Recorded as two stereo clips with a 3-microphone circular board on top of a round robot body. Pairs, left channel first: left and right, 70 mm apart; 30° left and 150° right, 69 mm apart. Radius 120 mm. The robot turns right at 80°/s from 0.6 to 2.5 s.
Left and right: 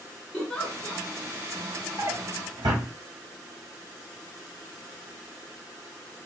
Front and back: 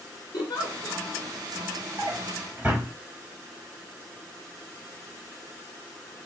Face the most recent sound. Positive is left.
turn(degrees=-80)